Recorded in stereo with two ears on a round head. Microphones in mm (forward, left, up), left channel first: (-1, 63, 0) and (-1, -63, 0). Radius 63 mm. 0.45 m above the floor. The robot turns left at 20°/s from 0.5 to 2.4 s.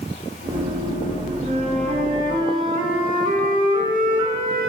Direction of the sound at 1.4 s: 50° right (ahead or behind).